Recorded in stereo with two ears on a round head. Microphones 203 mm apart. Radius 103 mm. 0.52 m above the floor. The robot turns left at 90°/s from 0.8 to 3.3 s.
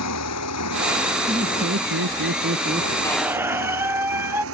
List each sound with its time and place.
0.0 s a motorcycle: 90° left; by 4.5 s 70° right (ahead or behind)
1.3 s laughter: 15° right; by 2.9 s 165° right
3.0 s a squeak: 15° left (ahead or behind); by 4.4 s 10° right (ahead or behind)